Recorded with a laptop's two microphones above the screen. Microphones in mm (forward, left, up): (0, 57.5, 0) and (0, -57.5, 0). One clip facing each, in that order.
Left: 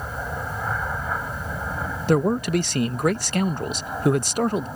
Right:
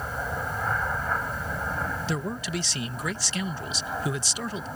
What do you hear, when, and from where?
0.0 s an aircraft: 5° left (ahead or behind)
2.1 s a man speaking: 55° left (ahead or behind)